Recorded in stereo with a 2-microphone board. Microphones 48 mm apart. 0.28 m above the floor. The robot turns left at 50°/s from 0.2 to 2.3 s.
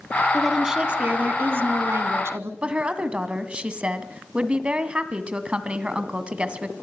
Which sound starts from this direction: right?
A woman speaking, at 2.6 s.